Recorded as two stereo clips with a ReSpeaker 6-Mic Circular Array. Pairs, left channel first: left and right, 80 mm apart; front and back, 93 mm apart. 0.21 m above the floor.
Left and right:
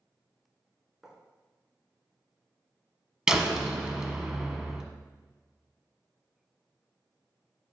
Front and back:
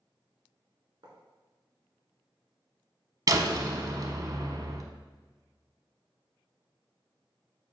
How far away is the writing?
About 1.7 m.